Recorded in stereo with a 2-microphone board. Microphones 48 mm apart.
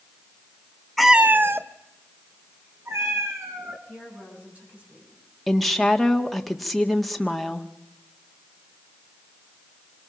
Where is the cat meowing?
5° left (ahead or behind), 0.6 m; by 3.8 s 70° right (ahead or behind), 4 m.